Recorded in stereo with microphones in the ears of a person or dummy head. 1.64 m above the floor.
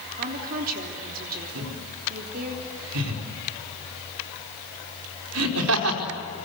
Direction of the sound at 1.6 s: 85° right.